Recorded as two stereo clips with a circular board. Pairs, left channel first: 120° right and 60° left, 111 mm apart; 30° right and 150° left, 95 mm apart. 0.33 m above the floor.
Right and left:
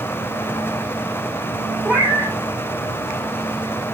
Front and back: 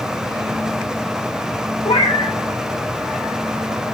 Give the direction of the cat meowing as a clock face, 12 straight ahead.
1 o'clock.